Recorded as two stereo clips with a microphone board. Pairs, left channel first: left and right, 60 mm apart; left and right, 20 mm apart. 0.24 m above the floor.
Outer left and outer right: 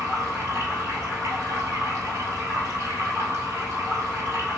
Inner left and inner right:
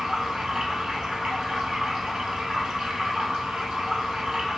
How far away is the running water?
About 1.4 m.